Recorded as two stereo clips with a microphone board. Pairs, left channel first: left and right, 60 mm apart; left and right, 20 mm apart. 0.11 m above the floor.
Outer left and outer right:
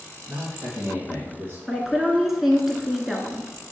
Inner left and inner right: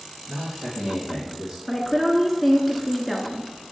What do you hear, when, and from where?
0.3 s a man speaking: 50° right (ahead or behind), 2 m; by 1.6 s 35° right (ahead or behind), 3 m
1.7 s a woman speaking: 5° right (ahead or behind), 1.2 m